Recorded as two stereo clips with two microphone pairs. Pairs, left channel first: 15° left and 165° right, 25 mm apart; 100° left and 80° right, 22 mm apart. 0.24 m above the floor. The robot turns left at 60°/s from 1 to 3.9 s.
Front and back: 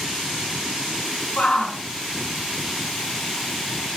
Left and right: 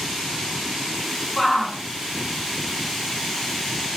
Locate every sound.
1.4 s a shout: 30° left, 2 m; by 1.8 s straight ahead, 2 m